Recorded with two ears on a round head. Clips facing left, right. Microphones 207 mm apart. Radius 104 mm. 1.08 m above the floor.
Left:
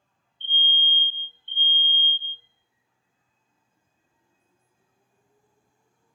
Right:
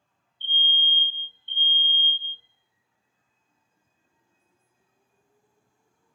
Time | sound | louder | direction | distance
0.4 | a fire alarm | left 1 dB | 5° right (ahead or behind) | 1.4 m